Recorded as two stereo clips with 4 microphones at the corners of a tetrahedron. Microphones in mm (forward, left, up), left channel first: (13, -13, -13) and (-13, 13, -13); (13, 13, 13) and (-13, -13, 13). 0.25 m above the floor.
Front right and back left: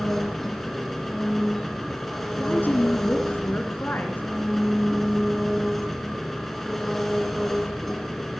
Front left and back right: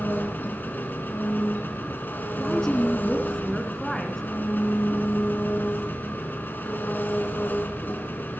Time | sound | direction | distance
0.0 | an engine running | 35° left | 2.5 m
2.4 | a woman speaking | 25° right | 3 m